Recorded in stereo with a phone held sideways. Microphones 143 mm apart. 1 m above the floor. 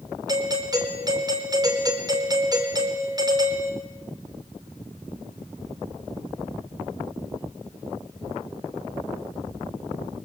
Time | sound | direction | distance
0.3 | a doorbell | 30° right (ahead or behind) | 4 m